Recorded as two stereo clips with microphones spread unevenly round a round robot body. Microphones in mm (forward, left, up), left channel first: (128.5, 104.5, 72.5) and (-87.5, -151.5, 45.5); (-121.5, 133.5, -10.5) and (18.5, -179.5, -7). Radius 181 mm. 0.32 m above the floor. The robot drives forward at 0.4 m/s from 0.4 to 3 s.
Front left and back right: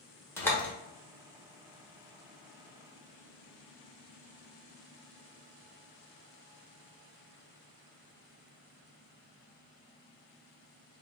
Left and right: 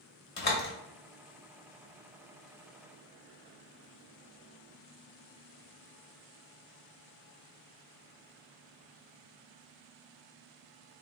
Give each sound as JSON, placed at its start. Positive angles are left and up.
{"t": 0.4, "sound": "a door slam", "azimuth_deg": 135, "distance_m": 0.9}